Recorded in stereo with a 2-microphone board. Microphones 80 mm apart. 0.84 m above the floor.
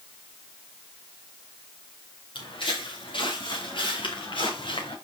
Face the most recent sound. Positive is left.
turn(degrees=75)  # may be behind; listen again after turning